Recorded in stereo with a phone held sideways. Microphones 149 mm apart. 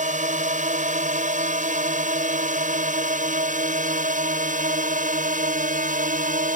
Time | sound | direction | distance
0.0 | a drone | 55° right (ahead or behind) | ?